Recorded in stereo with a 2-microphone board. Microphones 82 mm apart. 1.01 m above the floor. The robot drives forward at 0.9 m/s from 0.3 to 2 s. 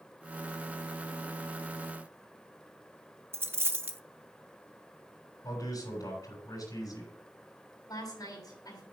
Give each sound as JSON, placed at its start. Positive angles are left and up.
{"t": 3.3, "sound": "a dropped coin", "side_deg": -30, "distance_m": 0.5}
{"t": 5.4, "sound": "a man speaking", "side_deg": 45, "distance_m": 7.0}
{"t": 7.9, "sound": "a woman speaking", "side_deg": 50, "distance_m": 6.0}